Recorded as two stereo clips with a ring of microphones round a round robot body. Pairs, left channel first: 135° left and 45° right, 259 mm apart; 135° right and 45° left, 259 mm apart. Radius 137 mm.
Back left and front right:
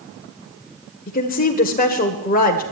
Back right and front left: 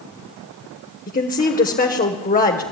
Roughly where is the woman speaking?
Behind.